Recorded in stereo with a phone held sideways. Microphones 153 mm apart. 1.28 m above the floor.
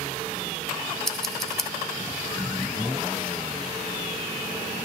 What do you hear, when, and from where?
1.1 s scissors: centre (ahead or behind), 0.7 m